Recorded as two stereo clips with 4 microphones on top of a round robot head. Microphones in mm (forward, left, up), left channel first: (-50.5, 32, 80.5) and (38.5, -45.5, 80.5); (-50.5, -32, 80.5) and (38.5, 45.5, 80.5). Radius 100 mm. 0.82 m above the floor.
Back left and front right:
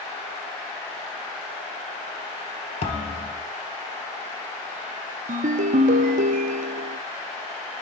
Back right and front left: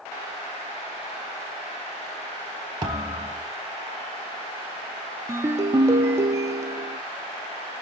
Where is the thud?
100° left, 2 m.